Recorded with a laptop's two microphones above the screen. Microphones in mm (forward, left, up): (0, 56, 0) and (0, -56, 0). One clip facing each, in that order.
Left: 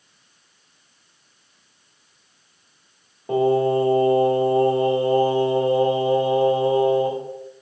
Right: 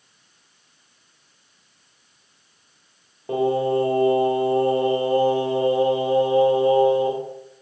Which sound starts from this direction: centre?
Singing, at 3.3 s.